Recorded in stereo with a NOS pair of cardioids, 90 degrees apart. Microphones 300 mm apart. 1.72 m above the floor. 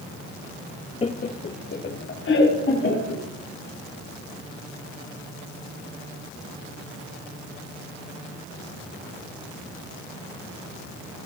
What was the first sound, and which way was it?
Laughter, 20° left.